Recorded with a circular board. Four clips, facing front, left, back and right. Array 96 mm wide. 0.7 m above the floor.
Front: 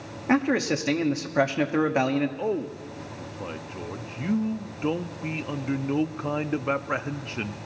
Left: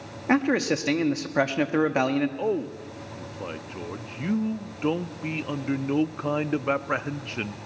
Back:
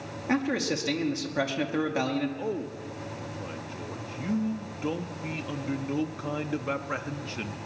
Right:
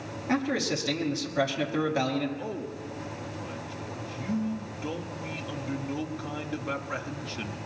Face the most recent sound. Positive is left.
turn(degrees=60)